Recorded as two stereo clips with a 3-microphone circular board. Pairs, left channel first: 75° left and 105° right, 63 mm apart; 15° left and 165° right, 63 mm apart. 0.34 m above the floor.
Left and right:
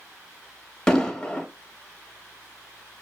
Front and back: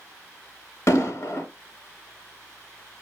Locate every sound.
0.9 s an explosion: straight ahead, 0.8 m